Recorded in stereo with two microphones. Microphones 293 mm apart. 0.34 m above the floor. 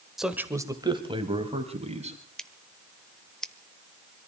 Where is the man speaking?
Centre (ahead or behind), 1.3 m; by 2.2 s 20° right (ahead or behind), 3.5 m.